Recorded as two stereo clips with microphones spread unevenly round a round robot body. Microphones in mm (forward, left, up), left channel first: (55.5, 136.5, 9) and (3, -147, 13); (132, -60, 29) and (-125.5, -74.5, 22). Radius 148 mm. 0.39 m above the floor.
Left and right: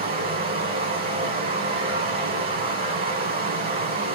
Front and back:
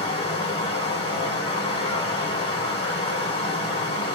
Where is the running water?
60° right, 1.4 m.